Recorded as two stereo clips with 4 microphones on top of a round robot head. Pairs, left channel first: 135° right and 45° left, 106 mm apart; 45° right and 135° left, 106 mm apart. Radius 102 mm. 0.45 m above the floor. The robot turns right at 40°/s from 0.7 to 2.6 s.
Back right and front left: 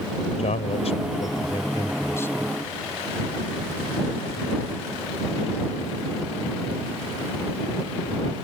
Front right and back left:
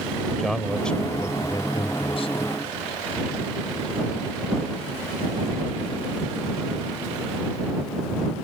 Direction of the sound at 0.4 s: 130° right.